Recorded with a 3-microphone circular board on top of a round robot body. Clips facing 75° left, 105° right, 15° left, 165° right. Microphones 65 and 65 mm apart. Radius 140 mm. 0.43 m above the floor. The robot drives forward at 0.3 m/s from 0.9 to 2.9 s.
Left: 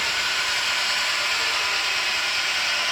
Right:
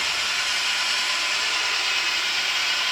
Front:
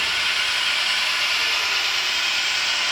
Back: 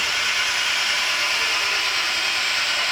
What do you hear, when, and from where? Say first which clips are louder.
0.0 s an engine running: left 2 dB, back 1 dB; 120° left, 1.3 m; by 2.9 s 140° left, 1.6 m